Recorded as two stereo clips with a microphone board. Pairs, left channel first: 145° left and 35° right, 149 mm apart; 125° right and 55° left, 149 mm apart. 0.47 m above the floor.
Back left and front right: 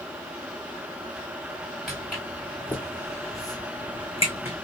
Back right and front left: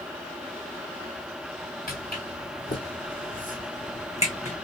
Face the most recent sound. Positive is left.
turn(degrees=-175)